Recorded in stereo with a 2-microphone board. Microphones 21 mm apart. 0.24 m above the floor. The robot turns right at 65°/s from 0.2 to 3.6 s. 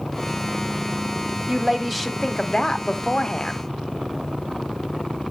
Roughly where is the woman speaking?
Ahead right.